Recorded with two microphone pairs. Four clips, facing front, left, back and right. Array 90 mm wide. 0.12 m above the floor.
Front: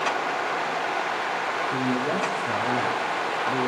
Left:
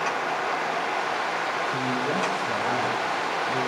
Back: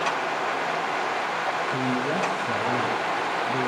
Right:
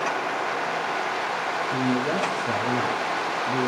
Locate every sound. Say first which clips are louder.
1.7 s a man speaking: right 2 dB, even; 40° right, 6 m